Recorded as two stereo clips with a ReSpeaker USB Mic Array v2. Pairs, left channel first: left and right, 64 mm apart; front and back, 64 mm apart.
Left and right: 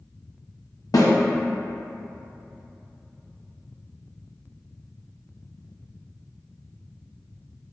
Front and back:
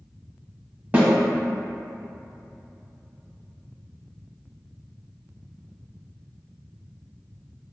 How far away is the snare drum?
About 0.7 m.